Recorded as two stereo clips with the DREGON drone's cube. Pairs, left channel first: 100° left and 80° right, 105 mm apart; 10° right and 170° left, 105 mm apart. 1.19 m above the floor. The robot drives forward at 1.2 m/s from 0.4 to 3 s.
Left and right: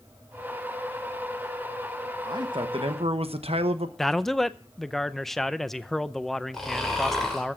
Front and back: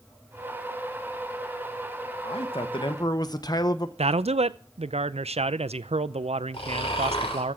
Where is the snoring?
15° left, 4 m.